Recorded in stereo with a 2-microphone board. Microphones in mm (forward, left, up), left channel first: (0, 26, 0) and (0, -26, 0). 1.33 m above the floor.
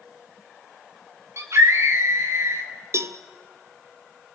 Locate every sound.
1.4 s a scream: 60° right (ahead or behind), 5 m
2.9 s a cowbell: 55° right (ahead or behind), 1.0 m